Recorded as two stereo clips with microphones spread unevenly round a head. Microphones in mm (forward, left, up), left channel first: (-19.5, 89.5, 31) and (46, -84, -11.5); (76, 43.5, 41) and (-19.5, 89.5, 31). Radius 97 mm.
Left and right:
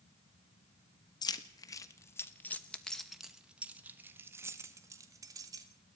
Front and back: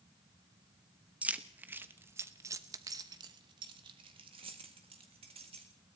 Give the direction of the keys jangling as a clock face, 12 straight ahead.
9 o'clock.